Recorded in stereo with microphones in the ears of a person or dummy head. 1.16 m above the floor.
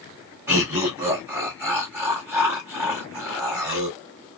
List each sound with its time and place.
0.5 s laughter: 15° right (ahead or behind), 1.6 m